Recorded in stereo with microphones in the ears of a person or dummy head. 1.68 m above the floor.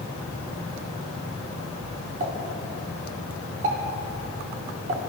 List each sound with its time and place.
2.2 s a pop: 45° right (ahead or behind), 2.5 m